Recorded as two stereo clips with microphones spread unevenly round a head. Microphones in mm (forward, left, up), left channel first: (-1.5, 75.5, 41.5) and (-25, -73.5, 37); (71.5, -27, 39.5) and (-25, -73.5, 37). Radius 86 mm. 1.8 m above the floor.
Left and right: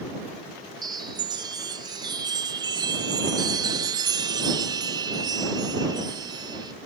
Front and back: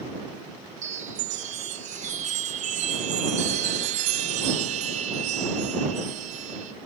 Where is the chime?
160° right.